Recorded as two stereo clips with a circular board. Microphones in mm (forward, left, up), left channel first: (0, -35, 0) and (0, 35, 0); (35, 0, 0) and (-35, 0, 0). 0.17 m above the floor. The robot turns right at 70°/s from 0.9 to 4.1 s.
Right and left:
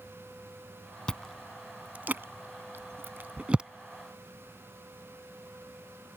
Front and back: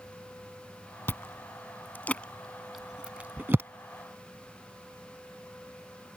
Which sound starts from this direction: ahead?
Chewing, at 1.1 s.